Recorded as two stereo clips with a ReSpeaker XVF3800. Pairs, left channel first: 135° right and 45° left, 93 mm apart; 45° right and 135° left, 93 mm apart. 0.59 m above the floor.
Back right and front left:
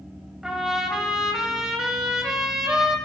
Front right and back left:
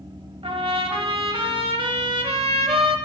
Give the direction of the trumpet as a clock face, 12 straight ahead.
8 o'clock.